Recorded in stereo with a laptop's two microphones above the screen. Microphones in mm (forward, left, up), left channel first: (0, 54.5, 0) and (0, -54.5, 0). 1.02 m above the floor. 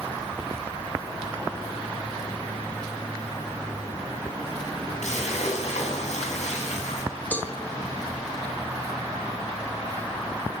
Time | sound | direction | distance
5.0 | a splash | 90° left | 7 m
7.3 | a cowbell | 15° left (ahead or behind) | 4.5 m